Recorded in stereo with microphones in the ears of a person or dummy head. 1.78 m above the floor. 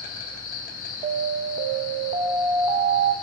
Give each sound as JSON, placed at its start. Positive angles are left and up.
{"t": 0.0, "sound": "an insect", "side_deg": 50, "distance_m": 0.9}
{"t": 1.0, "sound": "an alarm", "side_deg": -30, "distance_m": 0.6}